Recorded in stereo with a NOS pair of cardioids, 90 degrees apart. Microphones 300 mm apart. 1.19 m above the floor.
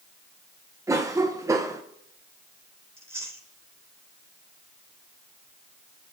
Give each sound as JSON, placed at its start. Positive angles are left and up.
{"t": 0.9, "sound": "a cough", "azimuth_deg": -10, "distance_m": 0.6}
{"t": 3.0, "sound": "chewing", "azimuth_deg": -10, "distance_m": 2.5}